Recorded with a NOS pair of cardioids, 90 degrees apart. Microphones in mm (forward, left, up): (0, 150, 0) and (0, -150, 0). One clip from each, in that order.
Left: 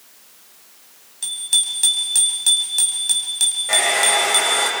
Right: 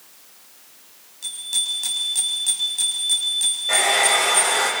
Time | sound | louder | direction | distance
1.2 | a bicycle bell | left 4 dB | 50° left | 5.5 m
3.7 | a hair dryer | even | 15° left | 6 m